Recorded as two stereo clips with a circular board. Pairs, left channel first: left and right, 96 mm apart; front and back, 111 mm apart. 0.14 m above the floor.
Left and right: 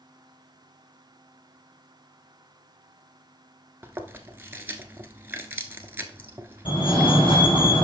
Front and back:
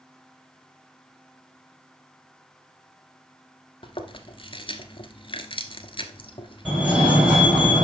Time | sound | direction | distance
3.8 | chewing | 25° right | 1.0 m
6.7 | a fire alarm | 105° left | 4.5 m